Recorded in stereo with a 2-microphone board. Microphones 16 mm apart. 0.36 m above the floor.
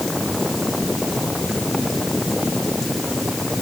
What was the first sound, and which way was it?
Only background noise.